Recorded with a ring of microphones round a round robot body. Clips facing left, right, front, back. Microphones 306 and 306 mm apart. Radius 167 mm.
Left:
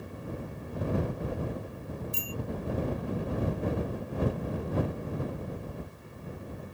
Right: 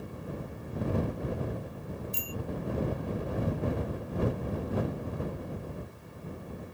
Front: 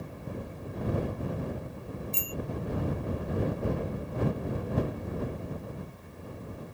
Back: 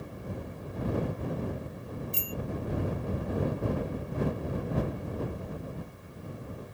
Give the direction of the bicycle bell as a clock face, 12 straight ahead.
8 o'clock.